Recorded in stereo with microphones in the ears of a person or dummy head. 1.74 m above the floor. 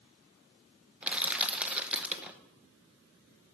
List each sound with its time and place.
1.0 s crushing: 10° right (ahead or behind), 0.6 m